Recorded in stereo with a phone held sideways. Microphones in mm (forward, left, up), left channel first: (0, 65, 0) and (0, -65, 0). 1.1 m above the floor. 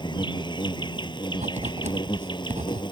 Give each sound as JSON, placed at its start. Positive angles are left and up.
{"t": 0.0, "sound": "an insect", "side_deg": 35}
{"t": 1.3, "sound": "writing", "side_deg": -60}